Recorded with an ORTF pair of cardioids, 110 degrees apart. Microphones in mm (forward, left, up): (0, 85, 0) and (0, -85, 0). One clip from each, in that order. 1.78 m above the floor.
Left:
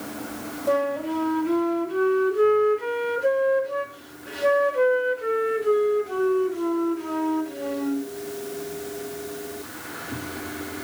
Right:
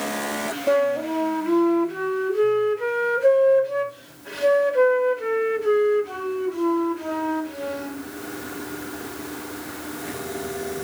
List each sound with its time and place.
0.7 s a flute: 25° right, 3 m